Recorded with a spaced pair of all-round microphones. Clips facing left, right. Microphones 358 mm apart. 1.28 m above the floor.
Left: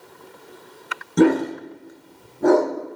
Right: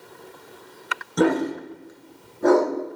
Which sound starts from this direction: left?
A dog barking, at 1.2 s.